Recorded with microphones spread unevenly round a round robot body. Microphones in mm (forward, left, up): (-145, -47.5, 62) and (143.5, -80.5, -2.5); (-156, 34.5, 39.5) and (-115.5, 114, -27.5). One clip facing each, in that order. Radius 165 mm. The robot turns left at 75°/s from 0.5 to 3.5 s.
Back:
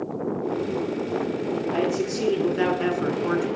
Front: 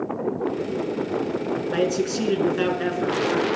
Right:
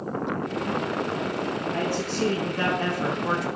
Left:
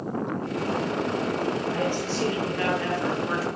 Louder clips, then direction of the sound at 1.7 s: Front 4 dB, even; 15° right.